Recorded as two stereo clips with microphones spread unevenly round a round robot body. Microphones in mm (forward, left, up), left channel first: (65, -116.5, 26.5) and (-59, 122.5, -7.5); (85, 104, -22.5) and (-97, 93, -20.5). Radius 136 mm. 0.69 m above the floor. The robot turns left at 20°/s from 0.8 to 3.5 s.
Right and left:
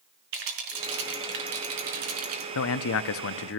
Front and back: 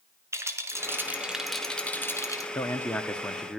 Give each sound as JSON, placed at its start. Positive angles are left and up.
{"t": 0.3, "sound": "a rattle", "azimuth_deg": 110, "distance_m": 4.0}
{"t": 2.5, "sound": "a man speaking", "azimuth_deg": -70, "distance_m": 0.8}